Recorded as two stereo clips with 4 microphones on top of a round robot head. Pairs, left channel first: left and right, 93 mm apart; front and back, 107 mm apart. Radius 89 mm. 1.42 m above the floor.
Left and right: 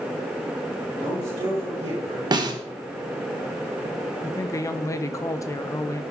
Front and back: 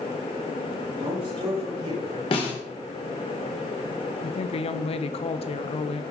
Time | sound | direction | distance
1.0 | a man speaking | 140° right | 6 m
2.3 | a snare drum | 45° right | 1.6 m
4.2 | a woman speaking | 30° left | 0.6 m